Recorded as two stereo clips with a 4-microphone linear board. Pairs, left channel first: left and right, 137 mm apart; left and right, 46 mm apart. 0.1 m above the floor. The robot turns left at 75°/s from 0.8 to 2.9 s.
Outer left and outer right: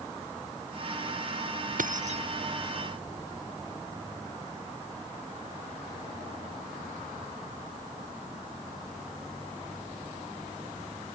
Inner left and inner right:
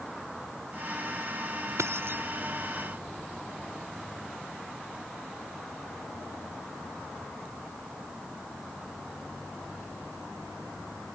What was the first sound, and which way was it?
Keys jangling, 100° right.